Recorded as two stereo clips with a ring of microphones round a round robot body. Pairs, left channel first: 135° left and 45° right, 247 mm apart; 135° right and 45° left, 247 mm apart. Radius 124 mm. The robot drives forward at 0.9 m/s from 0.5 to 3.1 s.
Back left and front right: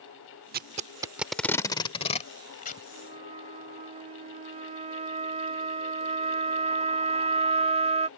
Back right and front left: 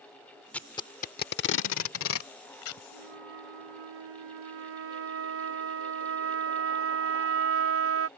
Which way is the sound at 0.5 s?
55° right.